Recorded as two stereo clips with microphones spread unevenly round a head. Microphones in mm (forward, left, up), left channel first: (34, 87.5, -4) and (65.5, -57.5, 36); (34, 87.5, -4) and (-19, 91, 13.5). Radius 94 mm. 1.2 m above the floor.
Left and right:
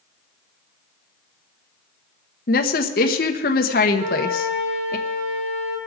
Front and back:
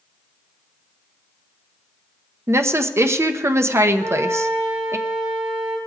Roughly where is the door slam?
No door slam in this recording.